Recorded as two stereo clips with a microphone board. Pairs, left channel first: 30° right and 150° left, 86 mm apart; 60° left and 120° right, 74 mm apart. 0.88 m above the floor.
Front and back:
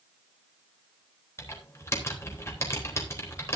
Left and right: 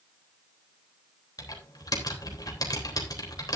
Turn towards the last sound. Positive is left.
turn(degrees=25)